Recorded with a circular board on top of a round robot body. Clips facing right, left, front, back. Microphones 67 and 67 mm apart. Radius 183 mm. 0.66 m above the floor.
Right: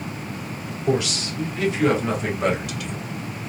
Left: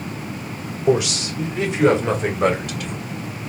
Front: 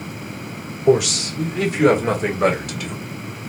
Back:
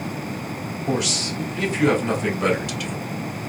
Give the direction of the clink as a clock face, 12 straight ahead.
I don't hear a clink.